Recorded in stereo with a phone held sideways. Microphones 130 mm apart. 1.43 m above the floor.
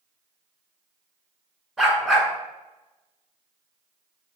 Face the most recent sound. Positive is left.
turn(degrees=-5)  # may be behind; listen again after turning